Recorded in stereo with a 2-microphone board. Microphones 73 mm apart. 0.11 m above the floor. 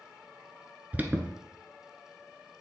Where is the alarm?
20° right (ahead or behind), 1.1 m.